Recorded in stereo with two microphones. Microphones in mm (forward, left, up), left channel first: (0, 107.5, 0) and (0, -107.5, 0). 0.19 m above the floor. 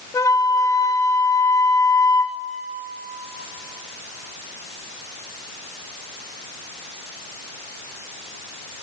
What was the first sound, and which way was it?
A flute, 15° left (ahead or behind).